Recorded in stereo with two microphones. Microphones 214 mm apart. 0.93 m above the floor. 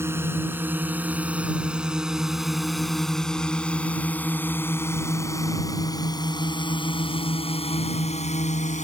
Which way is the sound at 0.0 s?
10° right (ahead or behind).